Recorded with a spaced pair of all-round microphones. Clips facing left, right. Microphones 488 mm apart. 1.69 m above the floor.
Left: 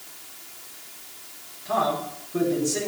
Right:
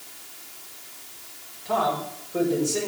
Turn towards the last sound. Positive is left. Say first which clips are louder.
# even
turn(degrees=35)  # may be behind; listen again after turning